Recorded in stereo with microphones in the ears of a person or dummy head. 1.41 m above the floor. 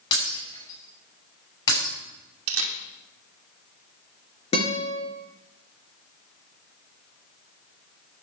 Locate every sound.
0.1 s breaking glass: 30° left (ahead or behind), 6.5 m
2.5 s a camera shutter: 85° right, 2.5 m
4.5 s a guitar: 35° left (ahead or behind), 3.5 m